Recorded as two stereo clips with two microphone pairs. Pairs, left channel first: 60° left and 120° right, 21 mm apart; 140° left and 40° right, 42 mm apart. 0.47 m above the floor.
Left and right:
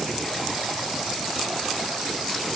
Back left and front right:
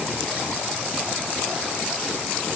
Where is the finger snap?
No finger snap in this recording.